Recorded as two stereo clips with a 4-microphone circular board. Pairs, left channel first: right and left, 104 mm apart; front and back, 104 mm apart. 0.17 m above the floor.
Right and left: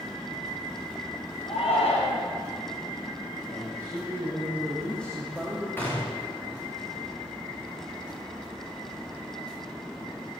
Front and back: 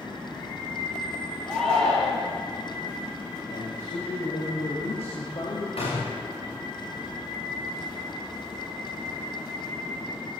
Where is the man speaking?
10° right, 7 m.